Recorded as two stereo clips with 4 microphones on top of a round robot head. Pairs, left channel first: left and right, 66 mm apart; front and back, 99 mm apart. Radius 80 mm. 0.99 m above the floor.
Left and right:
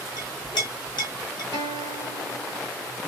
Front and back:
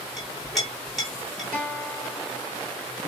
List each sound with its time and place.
0.2 s a clink: 90° left, 2 m
1.5 s a guitar: 75° left, 2.5 m